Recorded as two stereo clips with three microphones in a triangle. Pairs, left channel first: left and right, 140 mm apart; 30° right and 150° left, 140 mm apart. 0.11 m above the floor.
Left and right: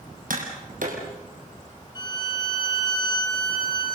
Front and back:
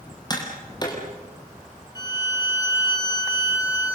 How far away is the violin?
About 4 m.